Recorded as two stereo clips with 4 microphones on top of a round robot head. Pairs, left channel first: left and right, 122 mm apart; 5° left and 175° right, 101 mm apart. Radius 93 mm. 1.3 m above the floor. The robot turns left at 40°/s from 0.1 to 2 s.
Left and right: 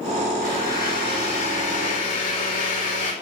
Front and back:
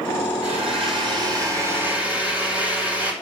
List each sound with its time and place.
0.4 s a blender: 175° left, 3 m; by 3.1 s 110° left, 3 m